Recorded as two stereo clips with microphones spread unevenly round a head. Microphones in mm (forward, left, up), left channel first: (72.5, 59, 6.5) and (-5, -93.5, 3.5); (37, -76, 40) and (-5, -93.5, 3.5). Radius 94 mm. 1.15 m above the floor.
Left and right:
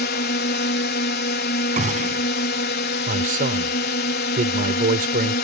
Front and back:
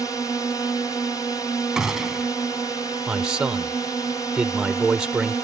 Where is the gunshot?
70° right.